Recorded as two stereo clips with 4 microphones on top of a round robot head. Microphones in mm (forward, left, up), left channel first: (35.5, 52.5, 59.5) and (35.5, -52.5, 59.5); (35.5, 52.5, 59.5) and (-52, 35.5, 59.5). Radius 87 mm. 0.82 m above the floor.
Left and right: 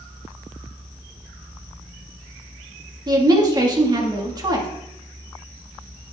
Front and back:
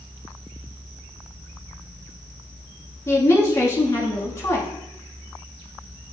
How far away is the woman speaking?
About 2.0 m.